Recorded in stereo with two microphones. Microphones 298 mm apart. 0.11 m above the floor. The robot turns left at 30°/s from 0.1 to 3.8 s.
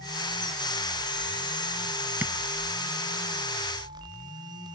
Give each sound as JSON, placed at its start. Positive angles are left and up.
{"t": 2.2, "sound": "tapping", "side_deg": -5, "distance_m": 0.6}